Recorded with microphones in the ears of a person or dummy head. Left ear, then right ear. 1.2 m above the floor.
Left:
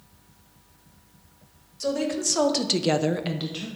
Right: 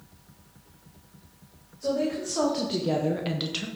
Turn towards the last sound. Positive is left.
turn(degrees=-35)  # may be behind; listen again after turning